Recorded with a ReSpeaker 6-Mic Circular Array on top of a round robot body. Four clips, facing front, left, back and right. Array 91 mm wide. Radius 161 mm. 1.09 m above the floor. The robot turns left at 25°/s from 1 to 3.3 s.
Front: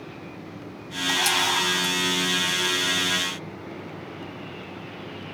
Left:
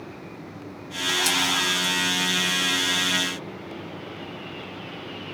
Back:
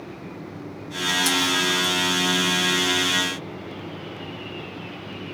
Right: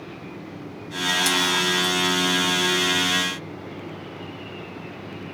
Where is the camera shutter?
Straight ahead, 1.3 m; by 1.9 s 20° right, 1.3 m.